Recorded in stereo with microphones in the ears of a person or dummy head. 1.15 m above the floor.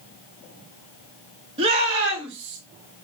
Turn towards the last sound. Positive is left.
turn(degrees=-35)  # may be behind; listen again after turning